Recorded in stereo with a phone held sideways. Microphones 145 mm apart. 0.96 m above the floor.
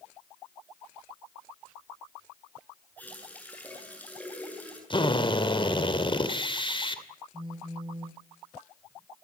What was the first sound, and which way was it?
A running tap, 10° left (ahead or behind).